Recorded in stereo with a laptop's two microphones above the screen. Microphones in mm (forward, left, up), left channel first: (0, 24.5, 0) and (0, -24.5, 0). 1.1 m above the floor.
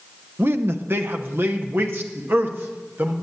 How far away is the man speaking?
About 0.9 m.